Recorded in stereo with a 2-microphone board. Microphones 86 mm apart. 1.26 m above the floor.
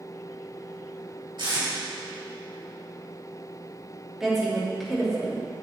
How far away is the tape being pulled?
About 3 m.